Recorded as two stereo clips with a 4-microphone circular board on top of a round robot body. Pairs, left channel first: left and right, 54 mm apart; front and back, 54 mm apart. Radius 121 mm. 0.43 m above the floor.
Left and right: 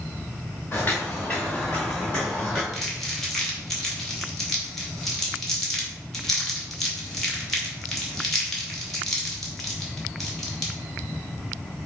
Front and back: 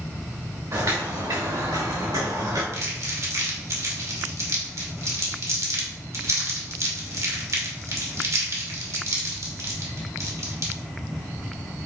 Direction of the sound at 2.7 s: 175° left.